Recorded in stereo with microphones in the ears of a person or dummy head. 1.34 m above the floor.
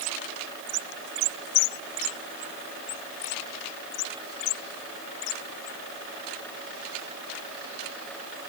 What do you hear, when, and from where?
Only background noise.